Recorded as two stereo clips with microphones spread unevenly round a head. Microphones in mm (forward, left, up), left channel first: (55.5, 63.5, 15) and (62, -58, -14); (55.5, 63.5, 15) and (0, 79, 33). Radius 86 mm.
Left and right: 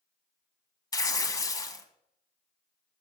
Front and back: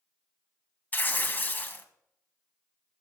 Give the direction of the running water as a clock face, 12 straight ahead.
I don't hear running water.